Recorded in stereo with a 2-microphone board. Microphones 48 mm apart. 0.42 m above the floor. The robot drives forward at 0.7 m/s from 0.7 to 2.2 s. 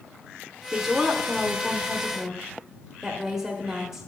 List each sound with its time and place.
0.7 s a woman speaking: 10° right (ahead or behind), 0.8 m